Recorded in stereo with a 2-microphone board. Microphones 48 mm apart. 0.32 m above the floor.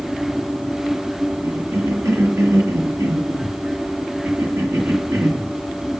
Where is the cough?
80° right, 8 m.